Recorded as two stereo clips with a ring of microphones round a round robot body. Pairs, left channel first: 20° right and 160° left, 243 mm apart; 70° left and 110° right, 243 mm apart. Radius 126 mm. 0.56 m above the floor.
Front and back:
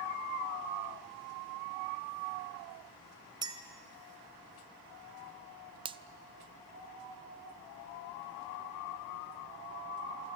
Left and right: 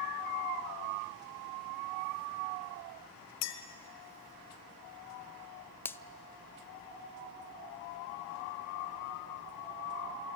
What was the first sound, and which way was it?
A clink, 85° left.